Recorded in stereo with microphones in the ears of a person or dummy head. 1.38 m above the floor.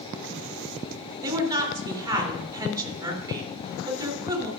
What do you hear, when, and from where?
1.2 s a woman speaking: 20° right (ahead or behind), 3.5 m